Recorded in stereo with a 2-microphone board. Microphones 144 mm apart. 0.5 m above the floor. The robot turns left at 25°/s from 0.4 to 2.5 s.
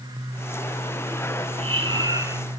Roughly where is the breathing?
Right.